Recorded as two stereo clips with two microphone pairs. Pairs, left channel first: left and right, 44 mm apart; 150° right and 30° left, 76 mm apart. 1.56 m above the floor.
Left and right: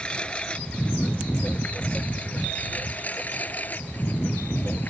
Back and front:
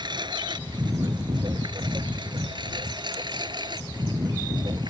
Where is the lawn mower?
25° left; by 4.9 s 45° left.